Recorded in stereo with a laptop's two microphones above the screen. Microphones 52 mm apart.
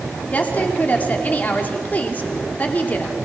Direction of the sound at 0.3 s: 30° left (ahead or behind).